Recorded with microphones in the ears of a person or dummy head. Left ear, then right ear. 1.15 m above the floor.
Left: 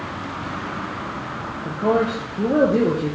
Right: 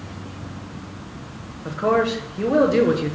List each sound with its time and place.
1.6 s a man speaking: 50° right (ahead or behind), 0.8 m